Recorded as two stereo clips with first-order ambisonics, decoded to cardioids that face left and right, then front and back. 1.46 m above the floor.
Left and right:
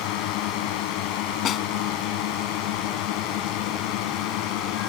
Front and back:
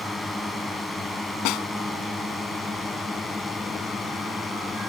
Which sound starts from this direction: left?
A drone, at 0.0 s.